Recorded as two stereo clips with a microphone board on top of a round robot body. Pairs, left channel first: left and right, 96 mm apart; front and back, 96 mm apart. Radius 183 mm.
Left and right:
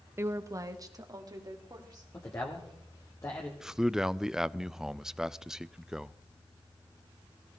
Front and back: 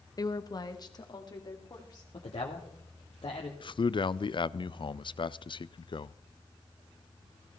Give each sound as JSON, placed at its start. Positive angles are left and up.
{"t": 0.2, "sound": "a woman speaking", "azimuth_deg": -35, "distance_m": 1.0}
{"t": 2.1, "sound": "a man speaking", "azimuth_deg": 30, "distance_m": 1.9}
{"t": 3.6, "sound": "a man speaking", "azimuth_deg": -5, "distance_m": 0.6}